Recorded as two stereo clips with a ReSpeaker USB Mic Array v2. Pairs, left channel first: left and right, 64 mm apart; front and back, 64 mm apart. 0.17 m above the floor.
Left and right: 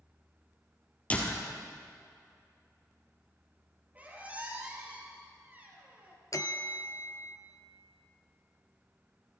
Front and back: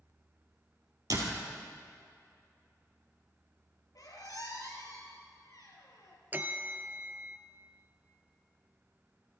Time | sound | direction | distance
1.1 | a door slam | 155° left | 2.5 m
4.0 | a squeak | 25° right | 3 m
6.3 | a bell | 120° left | 0.8 m